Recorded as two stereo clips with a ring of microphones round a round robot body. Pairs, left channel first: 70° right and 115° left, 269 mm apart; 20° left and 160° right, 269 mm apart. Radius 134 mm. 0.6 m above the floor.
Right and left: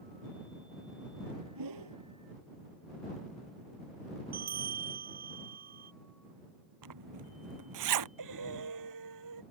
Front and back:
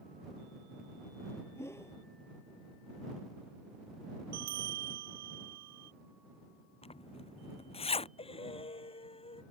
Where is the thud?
No thud in this recording.